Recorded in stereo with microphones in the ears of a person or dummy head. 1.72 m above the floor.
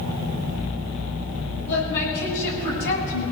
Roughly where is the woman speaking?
Left.